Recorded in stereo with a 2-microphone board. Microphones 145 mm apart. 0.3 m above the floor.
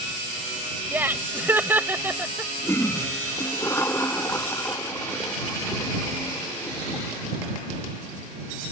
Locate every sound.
0.9 s laughter: 15° right (ahead or behind)
2.6 s a toilet flushing: 20° left (ahead or behind)